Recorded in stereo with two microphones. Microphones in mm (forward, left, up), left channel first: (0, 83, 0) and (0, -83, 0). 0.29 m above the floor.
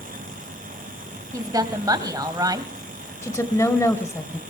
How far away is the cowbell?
I don't hear a cowbell.